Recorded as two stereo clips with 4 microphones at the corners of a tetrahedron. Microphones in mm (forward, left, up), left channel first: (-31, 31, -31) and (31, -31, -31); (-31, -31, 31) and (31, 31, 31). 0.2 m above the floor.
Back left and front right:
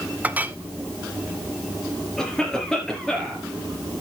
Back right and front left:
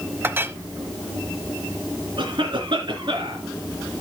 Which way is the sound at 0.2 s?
10° left.